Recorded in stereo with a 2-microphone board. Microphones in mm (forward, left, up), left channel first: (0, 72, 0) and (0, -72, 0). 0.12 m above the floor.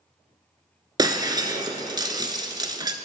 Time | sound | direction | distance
1.0 | breaking glass | 30° right (ahead or behind) | 1.2 m